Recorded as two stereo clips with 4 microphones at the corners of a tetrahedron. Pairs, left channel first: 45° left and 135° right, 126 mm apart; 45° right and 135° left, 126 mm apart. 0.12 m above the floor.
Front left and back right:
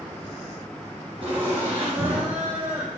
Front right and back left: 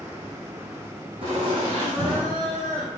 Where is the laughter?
Straight behind, 5 m.